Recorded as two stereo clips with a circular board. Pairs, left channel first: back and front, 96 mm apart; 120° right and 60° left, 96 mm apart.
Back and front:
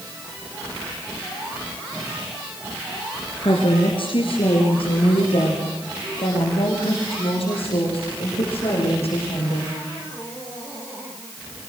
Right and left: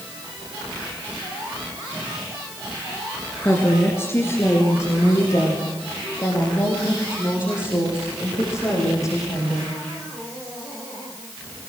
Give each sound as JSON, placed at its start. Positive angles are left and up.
{"t": 3.4, "sound": "a woman speaking", "azimuth_deg": 175, "distance_m": 2.5}